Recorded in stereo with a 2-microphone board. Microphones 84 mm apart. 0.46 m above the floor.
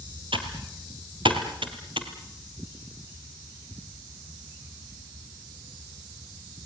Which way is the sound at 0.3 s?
85° right.